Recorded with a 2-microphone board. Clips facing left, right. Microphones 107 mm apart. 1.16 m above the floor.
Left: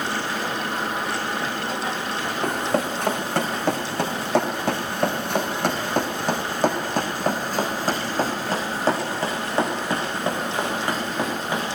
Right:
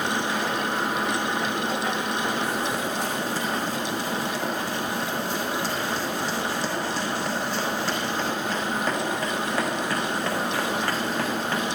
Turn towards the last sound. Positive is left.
turn(degrees=15)  # may be behind; listen again after turning